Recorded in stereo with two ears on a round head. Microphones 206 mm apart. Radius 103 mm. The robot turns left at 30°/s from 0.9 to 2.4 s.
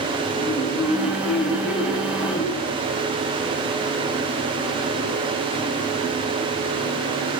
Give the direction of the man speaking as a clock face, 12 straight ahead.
10 o'clock.